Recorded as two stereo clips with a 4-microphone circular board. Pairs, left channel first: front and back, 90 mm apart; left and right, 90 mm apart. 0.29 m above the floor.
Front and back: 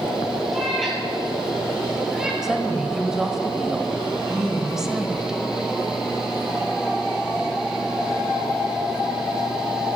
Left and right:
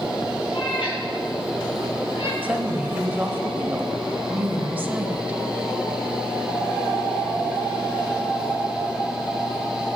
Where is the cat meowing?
85° left, 3 m; by 2.3 s 100° left, 2.5 m.